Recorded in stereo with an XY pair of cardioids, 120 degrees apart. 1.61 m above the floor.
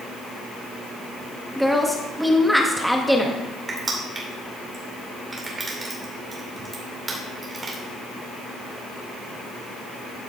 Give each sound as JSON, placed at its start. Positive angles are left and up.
{"t": 1.6, "sound": "a woman speaking", "azimuth_deg": 0, "distance_m": 0.9}
{"t": 3.7, "sound": "crushing", "azimuth_deg": -30, "distance_m": 3.0}